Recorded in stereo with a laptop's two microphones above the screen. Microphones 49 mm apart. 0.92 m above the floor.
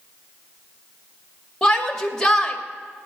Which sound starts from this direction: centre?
A shout, at 1.6 s.